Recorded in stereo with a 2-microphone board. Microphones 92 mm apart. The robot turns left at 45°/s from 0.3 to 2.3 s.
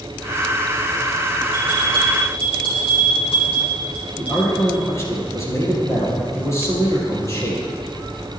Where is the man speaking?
30° left (ahead or behind), 5.5 m.